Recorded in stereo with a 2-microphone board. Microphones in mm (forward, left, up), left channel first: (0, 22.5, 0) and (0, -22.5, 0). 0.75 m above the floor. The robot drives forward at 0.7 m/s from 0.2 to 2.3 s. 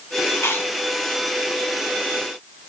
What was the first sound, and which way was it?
Chewing, 70° left (ahead or behind).